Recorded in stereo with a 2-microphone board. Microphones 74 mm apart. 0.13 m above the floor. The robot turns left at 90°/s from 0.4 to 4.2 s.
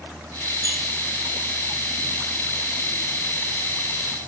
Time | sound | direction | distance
0.6 | a squeak | 65° left (ahead or behind) | 7 m